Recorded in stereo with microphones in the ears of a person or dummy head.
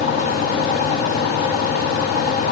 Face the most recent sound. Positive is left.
No sound to turn to.